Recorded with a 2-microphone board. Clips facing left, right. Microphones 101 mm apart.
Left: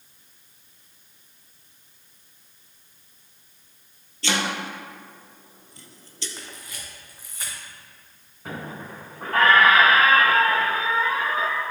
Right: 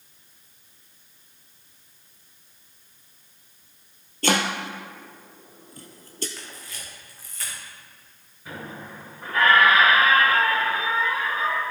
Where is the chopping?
50° right (ahead or behind), 1.0 m.